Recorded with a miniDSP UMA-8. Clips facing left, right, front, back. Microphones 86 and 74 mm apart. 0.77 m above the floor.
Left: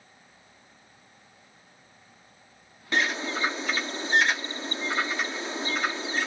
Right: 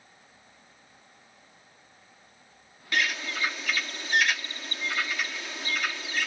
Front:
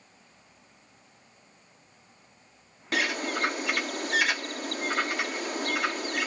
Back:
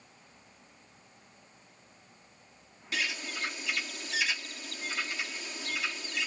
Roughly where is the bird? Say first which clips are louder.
Left 2 dB, front 7 dB; ahead left.